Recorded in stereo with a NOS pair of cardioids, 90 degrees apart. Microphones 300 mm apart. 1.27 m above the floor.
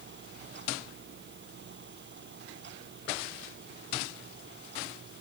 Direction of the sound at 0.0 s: 35° right.